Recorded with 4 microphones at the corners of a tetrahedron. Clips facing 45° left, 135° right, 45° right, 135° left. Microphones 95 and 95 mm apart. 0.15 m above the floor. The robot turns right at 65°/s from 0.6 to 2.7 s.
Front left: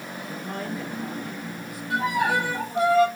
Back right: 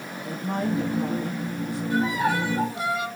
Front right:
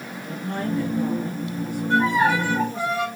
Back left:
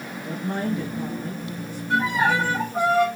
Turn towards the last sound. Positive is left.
turn(degrees=95)